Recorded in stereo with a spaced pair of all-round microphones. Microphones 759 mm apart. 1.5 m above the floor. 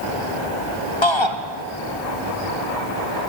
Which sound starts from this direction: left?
A shout, at 1.0 s.